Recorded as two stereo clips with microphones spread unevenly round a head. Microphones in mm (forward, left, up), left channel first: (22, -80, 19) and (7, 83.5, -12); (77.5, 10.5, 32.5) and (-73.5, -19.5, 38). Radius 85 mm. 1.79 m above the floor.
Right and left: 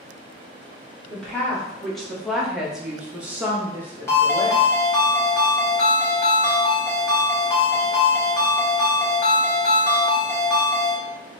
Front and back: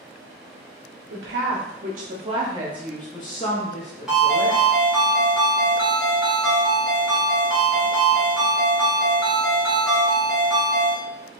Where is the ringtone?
90° right, 1.4 m.